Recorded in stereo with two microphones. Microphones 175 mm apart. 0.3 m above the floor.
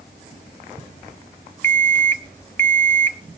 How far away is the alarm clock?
About 0.8 m.